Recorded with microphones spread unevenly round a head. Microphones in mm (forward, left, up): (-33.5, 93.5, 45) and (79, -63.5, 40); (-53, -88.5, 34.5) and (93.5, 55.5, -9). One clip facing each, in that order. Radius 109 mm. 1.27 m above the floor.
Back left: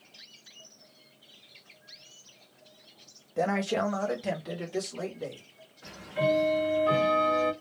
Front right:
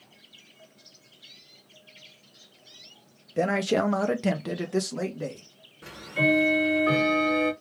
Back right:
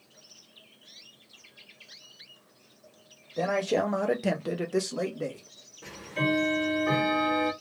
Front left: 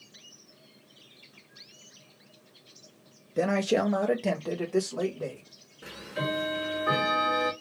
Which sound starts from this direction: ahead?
A man speaking, at 3.4 s.